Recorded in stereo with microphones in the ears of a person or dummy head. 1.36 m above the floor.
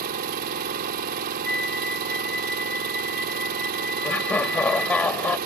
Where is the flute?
Centre (ahead or behind).